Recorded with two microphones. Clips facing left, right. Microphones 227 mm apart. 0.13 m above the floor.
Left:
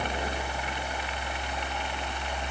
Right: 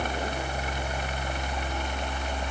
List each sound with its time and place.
Only background noise.